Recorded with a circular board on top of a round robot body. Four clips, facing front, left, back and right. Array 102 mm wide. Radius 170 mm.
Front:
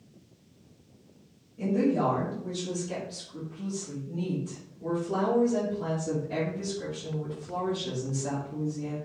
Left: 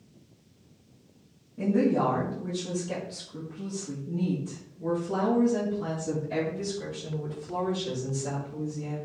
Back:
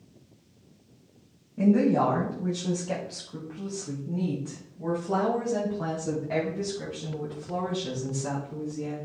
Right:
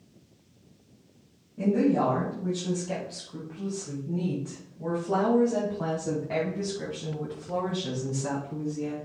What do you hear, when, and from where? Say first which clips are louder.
1.6 s a woman speaking: right 1 dB, back 4 dB; straight behind, 3.5 m; by 8.9 s 105° right, 5 m